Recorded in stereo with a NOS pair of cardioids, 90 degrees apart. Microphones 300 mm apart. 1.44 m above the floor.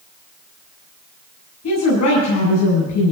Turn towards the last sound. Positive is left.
turn(degrees=65)